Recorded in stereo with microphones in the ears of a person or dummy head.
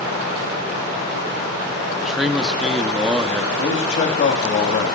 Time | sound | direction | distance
2.0 | a man speaking | 5° left (ahead or behind) | 1.2 m
3.6 | a man speaking | 40° left (ahead or behind) | 2 m